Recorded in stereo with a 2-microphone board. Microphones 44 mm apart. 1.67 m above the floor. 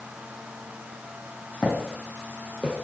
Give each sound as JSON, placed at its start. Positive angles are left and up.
{"t": 1.6, "sound": "footsteps", "side_deg": 20, "distance_m": 3.5}